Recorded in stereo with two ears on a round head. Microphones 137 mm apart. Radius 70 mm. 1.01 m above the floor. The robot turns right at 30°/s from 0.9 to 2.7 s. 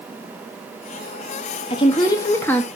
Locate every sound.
1.7 s a woman speaking: 35° left (ahead or behind), 1.8 m; by 2.7 s 10° left (ahead or behind), 1.8 m